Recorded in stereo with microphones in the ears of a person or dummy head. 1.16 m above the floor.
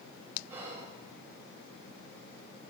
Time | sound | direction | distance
0.5 | whispering | 15° right (ahead or behind) | 0.7 m